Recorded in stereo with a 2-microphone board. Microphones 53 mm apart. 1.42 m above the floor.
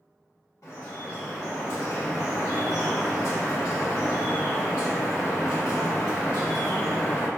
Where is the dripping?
65° left (ahead or behind), 1.2 m.